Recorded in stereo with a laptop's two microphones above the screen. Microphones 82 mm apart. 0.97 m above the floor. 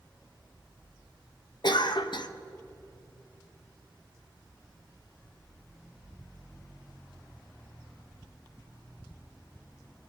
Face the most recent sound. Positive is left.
turn(degrees=65)  # may be behind; listen again after turning